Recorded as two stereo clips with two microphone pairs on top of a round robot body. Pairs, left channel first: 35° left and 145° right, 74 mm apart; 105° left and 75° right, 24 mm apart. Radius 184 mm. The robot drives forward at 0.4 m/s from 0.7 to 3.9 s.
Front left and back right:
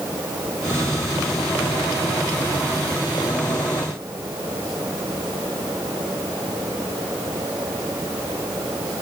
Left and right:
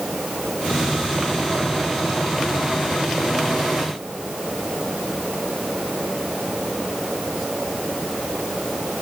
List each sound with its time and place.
Only background noise.